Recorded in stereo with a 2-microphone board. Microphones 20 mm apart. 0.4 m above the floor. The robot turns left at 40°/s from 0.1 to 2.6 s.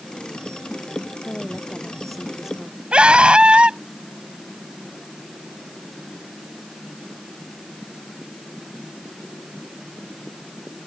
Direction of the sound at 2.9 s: 65° right (ahead or behind).